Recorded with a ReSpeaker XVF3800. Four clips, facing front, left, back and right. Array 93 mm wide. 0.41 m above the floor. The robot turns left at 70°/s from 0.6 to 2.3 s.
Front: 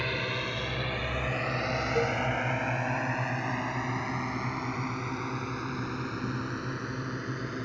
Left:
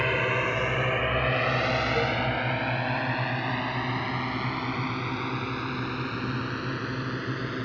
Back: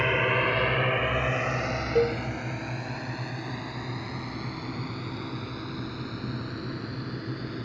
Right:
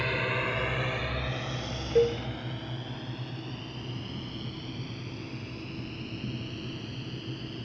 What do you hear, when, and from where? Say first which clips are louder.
0.0 s a drone: left 4 dB, back 8 dB; 140° left; by 7.7 s 75° left
1.9 s a cowbell: right 2 dB, back 6 dB; 125° right; by 2.2 s 145° right